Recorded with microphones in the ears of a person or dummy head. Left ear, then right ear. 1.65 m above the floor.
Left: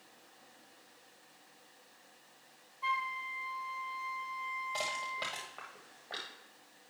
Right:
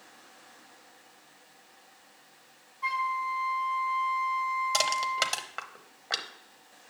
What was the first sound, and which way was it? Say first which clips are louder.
A flute: right 6 dB; centre (ahead or behind).